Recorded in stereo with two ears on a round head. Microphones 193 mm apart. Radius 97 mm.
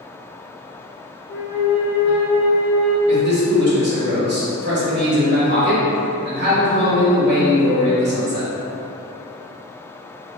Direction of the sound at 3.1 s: 50° right (ahead or behind).